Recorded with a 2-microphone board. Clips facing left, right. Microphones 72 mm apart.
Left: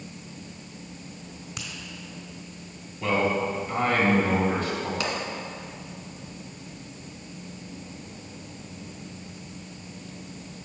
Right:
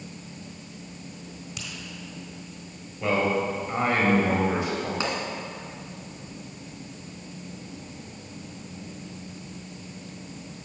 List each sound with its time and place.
1.6 s a finger snap: 45° left (ahead or behind), 2.5 m
3.0 s a man speaking: 15° right (ahead or behind), 2.5 m
5.0 s a pop: 25° right (ahead or behind), 1.5 m